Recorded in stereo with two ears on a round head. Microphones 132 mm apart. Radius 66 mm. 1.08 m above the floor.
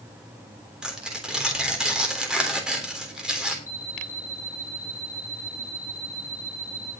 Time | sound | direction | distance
0.8 | tearing paper | 5° right (ahead or behind) | 3 m
3.7 | an alarm clock | 20° left (ahead or behind) | 3 m